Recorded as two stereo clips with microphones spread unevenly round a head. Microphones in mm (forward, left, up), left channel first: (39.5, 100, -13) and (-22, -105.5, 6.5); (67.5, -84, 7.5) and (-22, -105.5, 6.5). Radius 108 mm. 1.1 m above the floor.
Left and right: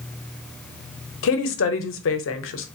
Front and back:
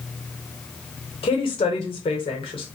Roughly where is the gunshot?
No gunshot in this recording.